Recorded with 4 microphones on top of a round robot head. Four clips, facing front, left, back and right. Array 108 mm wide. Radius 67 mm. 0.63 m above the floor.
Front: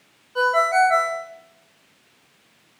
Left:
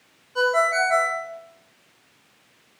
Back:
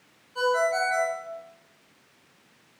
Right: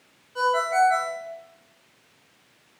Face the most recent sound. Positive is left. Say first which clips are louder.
# left 1 dB, front 6 dB
turn(degrees=20)